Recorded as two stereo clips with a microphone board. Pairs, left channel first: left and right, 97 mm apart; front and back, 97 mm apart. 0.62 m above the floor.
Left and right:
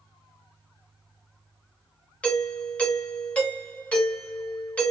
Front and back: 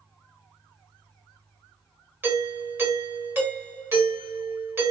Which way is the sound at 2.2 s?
150° left.